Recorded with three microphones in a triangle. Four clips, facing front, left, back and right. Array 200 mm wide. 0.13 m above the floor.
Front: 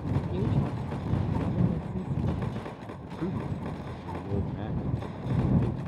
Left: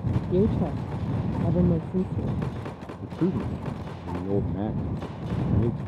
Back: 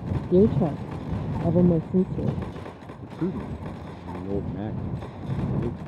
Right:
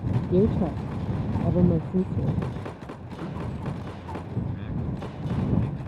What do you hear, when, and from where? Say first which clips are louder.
0.3 s a woman speaking: right 1 dB, back 15 dB; straight behind
3.0 s a man speaking: left 10 dB, back 5 dB; 120° left